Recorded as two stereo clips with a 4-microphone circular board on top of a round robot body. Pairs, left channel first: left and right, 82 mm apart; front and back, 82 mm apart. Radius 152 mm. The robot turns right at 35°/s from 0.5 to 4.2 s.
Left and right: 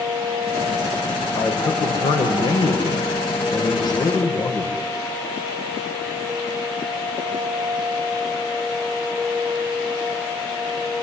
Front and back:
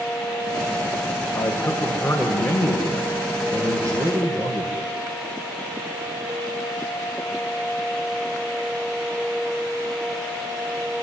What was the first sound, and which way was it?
A man speaking, 40° left.